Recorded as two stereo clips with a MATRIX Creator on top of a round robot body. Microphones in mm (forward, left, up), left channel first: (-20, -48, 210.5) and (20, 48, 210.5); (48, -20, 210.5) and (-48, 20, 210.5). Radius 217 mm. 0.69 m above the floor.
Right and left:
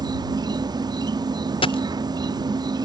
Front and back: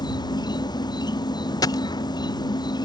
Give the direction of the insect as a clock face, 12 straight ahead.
11 o'clock.